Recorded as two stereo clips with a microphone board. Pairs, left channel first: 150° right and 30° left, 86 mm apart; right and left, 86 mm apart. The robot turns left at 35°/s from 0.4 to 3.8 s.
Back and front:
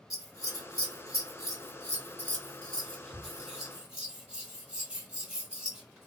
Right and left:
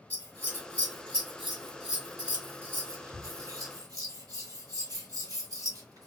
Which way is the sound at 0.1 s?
140° right.